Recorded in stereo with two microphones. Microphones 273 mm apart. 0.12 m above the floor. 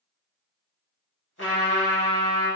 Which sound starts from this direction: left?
A trumpet, at 1.4 s.